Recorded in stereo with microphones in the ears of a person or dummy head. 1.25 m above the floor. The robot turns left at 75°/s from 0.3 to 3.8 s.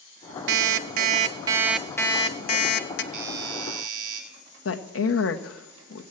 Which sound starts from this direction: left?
A woman speaking, at 4.7 s.